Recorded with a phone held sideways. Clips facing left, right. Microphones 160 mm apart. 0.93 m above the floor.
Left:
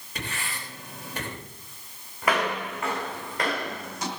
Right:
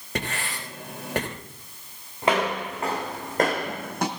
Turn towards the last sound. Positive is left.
turn(degrees=-60)  # may be behind; listen again after turning